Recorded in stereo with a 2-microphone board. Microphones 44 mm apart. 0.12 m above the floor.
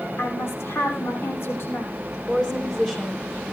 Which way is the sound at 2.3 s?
15° left (ahead or behind).